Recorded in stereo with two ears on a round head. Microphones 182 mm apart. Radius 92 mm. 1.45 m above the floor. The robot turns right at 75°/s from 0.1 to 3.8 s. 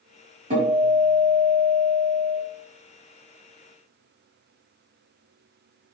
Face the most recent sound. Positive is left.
turn(degrees=-160)